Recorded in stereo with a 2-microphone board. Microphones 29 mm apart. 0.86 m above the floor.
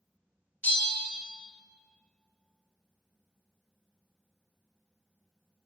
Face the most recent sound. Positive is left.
turn(degrees=60)  # may be behind; listen again after turning